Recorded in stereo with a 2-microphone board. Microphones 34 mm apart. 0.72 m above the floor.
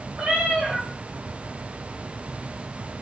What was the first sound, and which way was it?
A cat meowing, 40° right (ahead or behind).